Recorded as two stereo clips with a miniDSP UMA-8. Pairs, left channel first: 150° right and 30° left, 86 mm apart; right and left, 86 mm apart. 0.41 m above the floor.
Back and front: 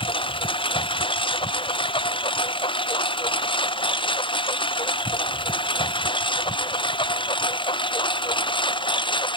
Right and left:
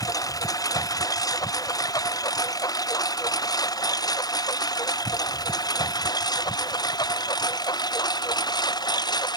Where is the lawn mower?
135° right; by 9.4 s 125° right.